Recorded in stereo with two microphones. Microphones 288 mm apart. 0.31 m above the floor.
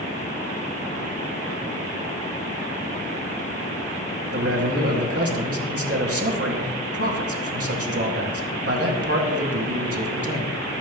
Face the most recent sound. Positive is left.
turn(degrees=-50)  # may be behind; listen again after turning